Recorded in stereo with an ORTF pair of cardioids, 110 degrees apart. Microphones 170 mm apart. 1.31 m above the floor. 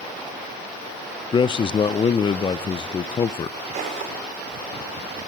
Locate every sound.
1.3 s a man speaking: 30° left, 0.6 m
3.7 s footsteps: 45° right, 8 m